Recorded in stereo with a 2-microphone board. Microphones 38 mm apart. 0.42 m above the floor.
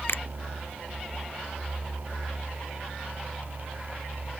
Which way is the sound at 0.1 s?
80° left.